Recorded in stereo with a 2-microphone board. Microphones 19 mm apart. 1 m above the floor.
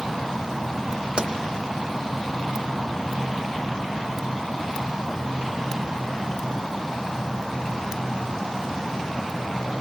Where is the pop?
65° right (ahead or behind), 0.8 m.